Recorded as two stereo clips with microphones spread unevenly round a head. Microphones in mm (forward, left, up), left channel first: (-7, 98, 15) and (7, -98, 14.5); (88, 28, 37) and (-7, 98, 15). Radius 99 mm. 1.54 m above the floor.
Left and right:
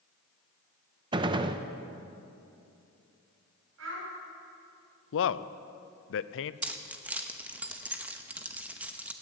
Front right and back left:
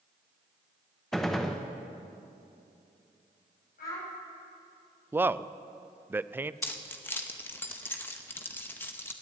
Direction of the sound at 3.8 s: 60° right.